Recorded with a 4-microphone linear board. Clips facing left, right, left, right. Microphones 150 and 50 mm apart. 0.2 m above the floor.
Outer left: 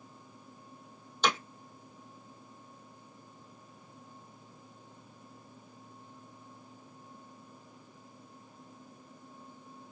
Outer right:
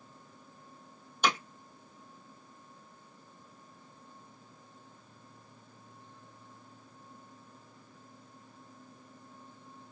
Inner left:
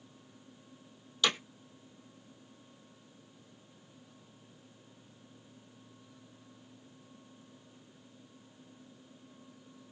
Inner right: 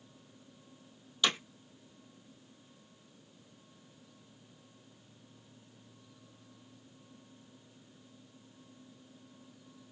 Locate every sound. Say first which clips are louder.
1.2 s hammering: even, even; 10° right (ahead or behind), 1.9 m